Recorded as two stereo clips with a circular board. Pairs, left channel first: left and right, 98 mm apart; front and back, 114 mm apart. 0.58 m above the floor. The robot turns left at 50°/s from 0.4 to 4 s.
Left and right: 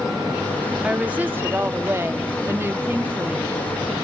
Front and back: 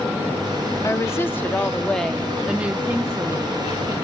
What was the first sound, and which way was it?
A woman speaking, 25° right.